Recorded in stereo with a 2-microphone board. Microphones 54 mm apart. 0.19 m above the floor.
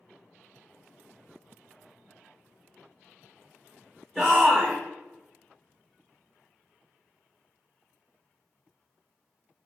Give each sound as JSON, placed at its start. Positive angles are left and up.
{"t": 4.2, "sound": "a shout", "side_deg": 5, "distance_m": 1.5}